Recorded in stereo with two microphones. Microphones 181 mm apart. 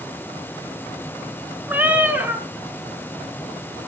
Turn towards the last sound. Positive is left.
turn(degrees=-10)  # may be behind; listen again after turning